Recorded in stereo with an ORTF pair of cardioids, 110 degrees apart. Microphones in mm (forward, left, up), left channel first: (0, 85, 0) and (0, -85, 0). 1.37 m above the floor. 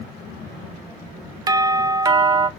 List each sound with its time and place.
1.5 s a doorbell: 25° right, 0.6 m